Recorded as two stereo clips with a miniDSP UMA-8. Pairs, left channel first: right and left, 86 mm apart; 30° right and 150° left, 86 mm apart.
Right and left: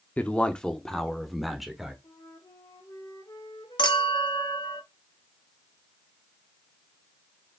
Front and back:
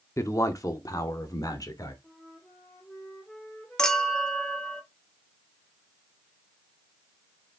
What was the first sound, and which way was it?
A man speaking, 30° right.